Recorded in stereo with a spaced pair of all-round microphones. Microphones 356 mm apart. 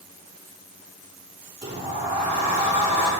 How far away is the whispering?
No whispering in this recording.